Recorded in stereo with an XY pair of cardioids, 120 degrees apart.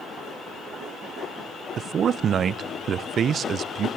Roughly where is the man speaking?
Ahead right.